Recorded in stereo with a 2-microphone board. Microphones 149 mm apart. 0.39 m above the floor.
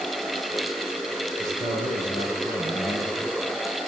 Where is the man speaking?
65° right (ahead or behind), 6.5 m; by 3.3 s 70° right (ahead or behind), 5 m.